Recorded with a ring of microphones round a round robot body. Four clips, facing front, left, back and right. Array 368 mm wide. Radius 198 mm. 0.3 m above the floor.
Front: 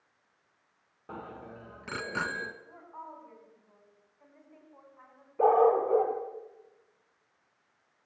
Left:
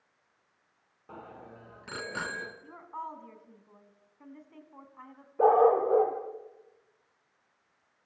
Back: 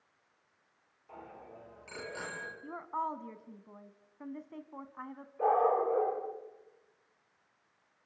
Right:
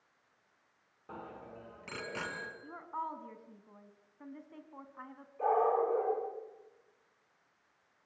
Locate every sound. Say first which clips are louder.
1.1 s a bicycle bell: even, front 6 dB; straight ahead, 3.5 m; by 2.5 s 15° left, 3.5 m
2.6 s a woman speaking: right 1 dB, back 10 dB; 170° right, 2.5 m
5.4 s a dog barking: left 8 dB, front 5 dB; 55° left, 4.5 m